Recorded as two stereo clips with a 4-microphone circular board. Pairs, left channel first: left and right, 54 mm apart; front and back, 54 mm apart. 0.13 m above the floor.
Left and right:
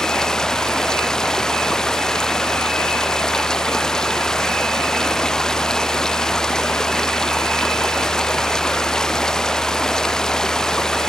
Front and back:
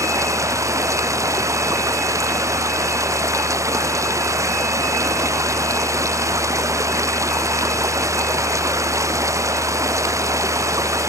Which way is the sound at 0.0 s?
170° left.